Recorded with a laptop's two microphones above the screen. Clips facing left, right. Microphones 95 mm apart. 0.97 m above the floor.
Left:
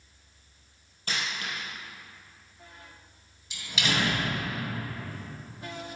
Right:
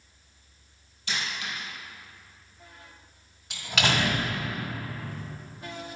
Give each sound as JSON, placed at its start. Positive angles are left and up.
{"t": 1.1, "sound": "a dropped coin", "side_deg": 45, "distance_m": 2.5}
{"t": 3.5, "sound": "a door slam", "side_deg": -85, "distance_m": 1.7}